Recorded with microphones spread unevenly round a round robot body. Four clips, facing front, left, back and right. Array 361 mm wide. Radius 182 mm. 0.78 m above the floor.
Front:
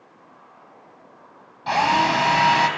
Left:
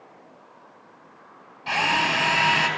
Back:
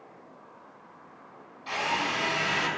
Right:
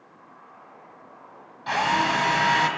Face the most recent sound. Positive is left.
turn(degrees=0)